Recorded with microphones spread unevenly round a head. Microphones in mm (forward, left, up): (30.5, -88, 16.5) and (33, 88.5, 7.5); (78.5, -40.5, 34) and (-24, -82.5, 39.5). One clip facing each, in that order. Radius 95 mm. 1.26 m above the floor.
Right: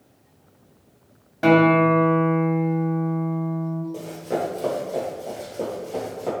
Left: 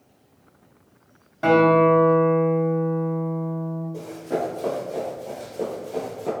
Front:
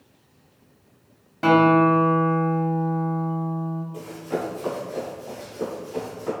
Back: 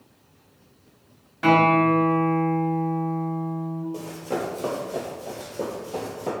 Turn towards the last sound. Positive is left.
turn(degrees=165)